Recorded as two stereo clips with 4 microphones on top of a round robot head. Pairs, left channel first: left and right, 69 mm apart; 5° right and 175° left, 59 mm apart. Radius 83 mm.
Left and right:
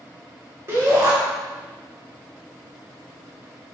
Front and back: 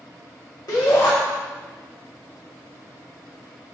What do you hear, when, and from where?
0.7 s a shout: 30° right, 1.3 m